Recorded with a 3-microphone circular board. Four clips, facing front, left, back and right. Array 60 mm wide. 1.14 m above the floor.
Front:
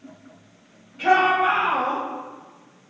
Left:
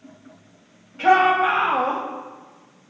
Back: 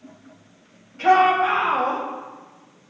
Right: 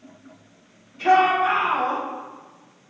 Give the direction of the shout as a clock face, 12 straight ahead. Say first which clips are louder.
Left 1 dB, back 2 dB; 9 o'clock.